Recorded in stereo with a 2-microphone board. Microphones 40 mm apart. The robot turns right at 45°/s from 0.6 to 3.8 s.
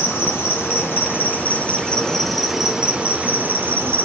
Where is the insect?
100° left, 1.1 m; by 4.0 s 115° right, 1.1 m.